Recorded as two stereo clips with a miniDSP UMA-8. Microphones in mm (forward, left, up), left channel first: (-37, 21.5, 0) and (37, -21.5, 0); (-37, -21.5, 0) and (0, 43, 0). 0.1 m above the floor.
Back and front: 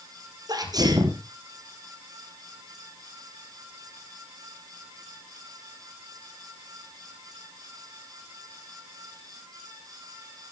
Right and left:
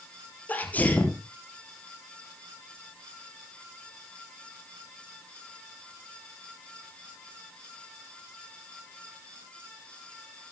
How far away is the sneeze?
About 2 m.